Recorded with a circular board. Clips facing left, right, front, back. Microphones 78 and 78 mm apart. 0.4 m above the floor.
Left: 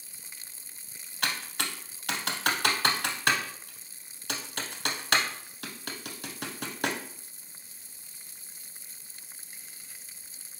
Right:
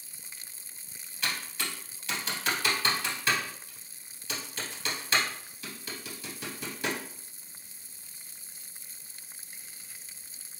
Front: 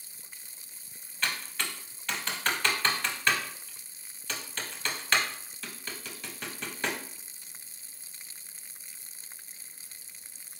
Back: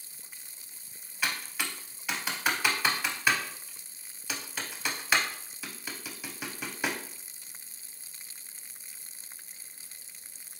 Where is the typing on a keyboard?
100° left, 0.5 m.